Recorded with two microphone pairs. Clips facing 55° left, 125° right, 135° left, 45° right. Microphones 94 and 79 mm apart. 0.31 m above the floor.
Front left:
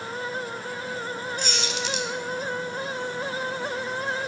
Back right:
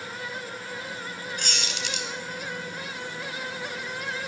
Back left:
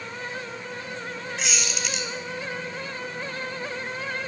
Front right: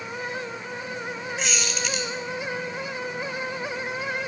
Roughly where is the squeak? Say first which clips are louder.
Front left 4 dB, front right 1 dB; behind right.